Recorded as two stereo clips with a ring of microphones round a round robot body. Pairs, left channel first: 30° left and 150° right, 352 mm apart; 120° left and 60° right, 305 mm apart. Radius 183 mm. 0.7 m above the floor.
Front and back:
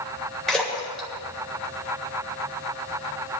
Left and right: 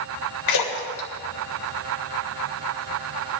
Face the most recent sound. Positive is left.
turn(degrees=120)